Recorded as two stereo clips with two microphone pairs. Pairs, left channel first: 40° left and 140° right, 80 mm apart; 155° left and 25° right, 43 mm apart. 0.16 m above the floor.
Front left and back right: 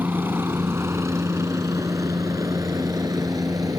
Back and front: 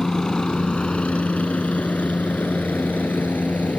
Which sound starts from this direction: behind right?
A helicopter, at 0.0 s.